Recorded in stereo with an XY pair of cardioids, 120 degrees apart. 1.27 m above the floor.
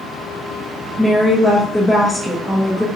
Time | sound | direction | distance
1.0 | a woman speaking | straight ahead | 0.8 m